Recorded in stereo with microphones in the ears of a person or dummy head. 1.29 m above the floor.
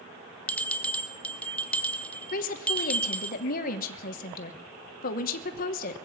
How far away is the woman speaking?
About 1.1 m.